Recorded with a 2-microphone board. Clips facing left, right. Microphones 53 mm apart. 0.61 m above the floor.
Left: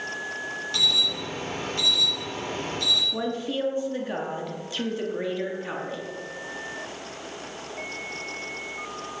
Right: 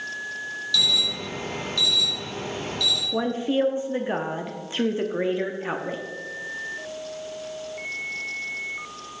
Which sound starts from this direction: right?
A woman speaking, at 3.1 s.